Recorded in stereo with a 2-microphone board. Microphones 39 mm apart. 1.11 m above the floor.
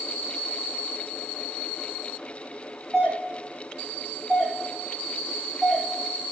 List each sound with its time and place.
2.9 s a doorbell: 25° right (ahead or behind), 2.0 m